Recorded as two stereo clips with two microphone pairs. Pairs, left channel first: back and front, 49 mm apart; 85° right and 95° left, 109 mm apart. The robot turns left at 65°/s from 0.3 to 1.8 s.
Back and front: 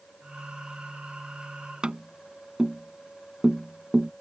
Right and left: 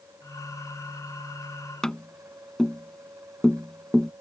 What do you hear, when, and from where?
1.8 s tapping: 15° right